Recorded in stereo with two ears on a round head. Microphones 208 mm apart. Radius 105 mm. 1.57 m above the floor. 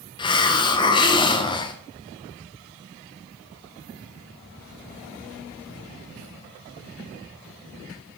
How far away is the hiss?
About 0.5 m.